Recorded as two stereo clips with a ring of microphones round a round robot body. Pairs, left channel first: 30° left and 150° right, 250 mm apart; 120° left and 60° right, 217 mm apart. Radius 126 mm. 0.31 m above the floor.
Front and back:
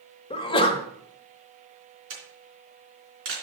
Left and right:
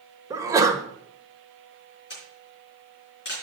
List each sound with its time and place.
0.3 s a sneeze: 5° right, 0.9 m
2.1 s a camera shutter: 170° left, 3.5 m